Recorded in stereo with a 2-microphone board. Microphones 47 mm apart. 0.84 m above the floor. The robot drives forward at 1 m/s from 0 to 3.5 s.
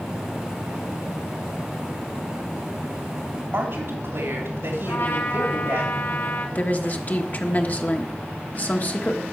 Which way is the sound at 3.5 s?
60° right (ahead or behind).